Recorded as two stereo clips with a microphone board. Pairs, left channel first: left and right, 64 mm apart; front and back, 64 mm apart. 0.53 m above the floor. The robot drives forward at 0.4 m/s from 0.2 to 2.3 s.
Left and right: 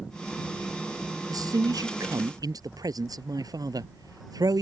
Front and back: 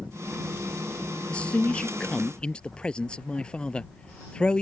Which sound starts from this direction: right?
A man speaking, at 1.3 s.